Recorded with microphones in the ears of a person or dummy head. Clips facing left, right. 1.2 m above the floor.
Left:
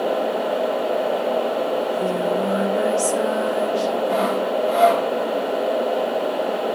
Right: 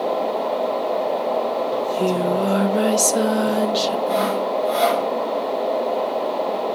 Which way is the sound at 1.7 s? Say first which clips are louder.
Right 1 dB; 50° right (ahead or behind).